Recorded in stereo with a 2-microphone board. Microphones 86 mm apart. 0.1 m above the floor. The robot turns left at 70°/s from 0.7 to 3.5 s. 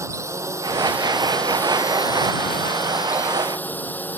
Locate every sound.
0.0 s a drone: 140° right; by 4.2 s 25° left